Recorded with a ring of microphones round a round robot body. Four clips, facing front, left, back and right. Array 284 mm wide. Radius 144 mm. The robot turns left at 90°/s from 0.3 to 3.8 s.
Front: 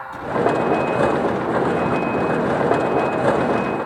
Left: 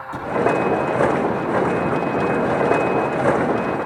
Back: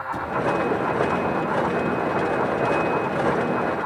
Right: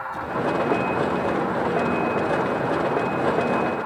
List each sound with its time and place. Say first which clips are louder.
0.1 s a cupboard door: left 3 dB, front 3 dB; 100° left, 8.5 m